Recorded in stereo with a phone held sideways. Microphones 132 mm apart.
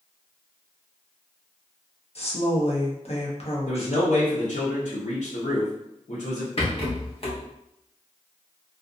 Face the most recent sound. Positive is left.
turn(degrees=45)  # may be behind; listen again after turning